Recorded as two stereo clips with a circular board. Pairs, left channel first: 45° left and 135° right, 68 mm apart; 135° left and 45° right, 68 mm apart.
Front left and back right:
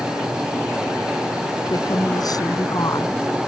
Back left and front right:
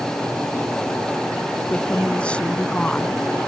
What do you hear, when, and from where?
1.7 s a woman speaking: 60° left